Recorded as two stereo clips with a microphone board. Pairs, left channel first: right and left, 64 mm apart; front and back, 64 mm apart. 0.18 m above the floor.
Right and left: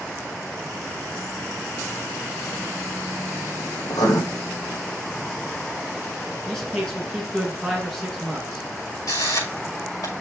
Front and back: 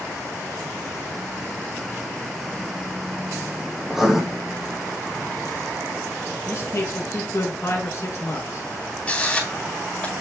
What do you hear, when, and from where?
3.9 s writing: 95° right, 2.5 m
6.5 s a man speaking: 5° right, 1.8 m
9.1 s a camera shutter: 75° right, 6 m